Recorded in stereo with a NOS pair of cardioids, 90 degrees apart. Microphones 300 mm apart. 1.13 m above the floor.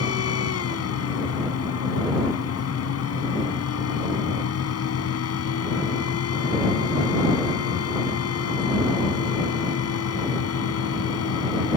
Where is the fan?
55° left.